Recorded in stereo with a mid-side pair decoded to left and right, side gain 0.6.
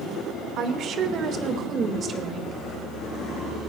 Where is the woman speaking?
60° right, 2 m; by 2.5 s 35° right, 3 m.